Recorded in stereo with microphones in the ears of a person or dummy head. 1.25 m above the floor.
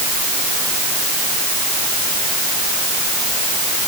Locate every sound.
Only background noise.